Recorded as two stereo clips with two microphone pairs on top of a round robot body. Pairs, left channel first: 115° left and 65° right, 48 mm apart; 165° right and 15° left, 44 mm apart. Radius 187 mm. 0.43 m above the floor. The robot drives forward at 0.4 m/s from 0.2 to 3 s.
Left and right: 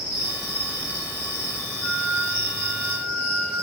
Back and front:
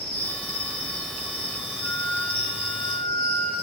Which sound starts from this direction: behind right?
A flute, at 1.8 s.